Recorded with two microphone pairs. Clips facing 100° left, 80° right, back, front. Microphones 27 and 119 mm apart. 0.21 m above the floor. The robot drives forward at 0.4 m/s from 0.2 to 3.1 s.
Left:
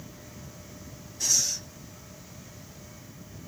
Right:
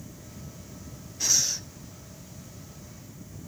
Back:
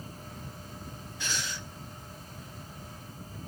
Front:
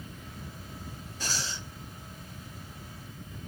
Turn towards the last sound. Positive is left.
turn(degrees=-170)